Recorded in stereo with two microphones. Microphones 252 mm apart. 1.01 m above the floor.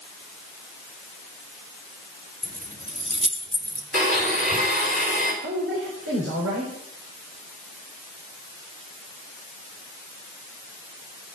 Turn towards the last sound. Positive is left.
turn(degrees=-60)  # may be behind; listen again after turning